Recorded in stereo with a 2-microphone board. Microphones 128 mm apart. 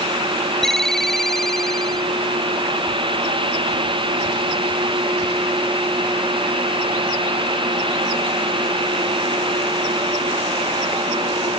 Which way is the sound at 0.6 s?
5° left (ahead or behind).